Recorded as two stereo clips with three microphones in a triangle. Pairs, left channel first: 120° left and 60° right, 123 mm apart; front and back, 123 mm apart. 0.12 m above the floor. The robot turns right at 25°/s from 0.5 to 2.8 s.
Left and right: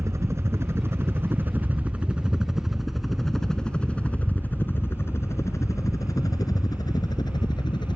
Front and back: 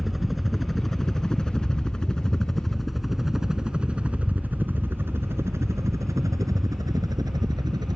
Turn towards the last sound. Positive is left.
turn(degrees=145)